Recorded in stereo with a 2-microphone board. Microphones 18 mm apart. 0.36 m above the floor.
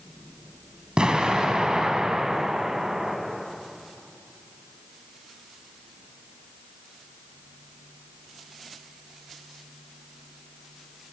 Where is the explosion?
65° right (ahead or behind), 3 m.